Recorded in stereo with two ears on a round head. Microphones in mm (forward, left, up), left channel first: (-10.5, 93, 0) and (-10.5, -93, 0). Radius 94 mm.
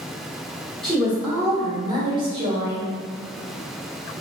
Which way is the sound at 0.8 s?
Centre (ahead or behind).